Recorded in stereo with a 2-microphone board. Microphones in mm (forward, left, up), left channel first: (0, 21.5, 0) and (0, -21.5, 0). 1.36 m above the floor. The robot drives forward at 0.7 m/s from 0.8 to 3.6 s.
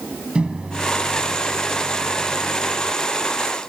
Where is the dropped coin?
I don't hear a dropped coin.